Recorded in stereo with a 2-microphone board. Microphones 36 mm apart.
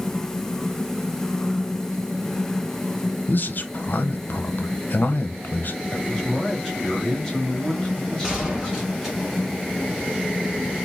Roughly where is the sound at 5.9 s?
Centre.